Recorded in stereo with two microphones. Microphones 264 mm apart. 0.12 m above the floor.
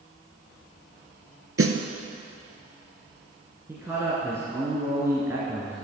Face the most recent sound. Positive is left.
turn(degrees=-10)  # may be behind; listen again after turning